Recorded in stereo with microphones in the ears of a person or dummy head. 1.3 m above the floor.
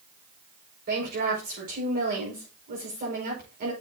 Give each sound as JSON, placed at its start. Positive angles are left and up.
{"t": 0.9, "sound": "a woman speaking", "side_deg": -40, "distance_m": 5.0}